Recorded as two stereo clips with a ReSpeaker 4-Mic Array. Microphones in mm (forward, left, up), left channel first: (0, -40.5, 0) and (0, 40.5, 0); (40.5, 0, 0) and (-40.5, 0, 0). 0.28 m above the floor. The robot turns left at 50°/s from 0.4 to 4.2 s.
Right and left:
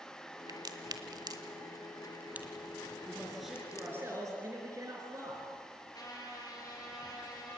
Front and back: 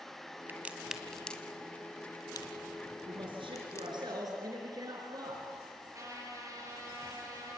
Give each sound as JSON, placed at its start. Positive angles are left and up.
{"t": 0.5, "sound": "a crack", "azimuth_deg": 115, "distance_m": 1.6}
{"t": 3.1, "sound": "a man speaking", "azimuth_deg": -160, "distance_m": 4.0}
{"t": 5.9, "sound": "a trumpet", "azimuth_deg": -135, "distance_m": 6.0}